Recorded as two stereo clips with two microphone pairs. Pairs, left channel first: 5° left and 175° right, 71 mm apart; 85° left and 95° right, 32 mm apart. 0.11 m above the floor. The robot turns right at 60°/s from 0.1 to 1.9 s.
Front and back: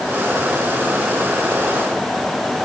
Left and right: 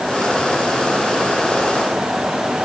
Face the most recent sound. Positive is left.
No sound to turn to.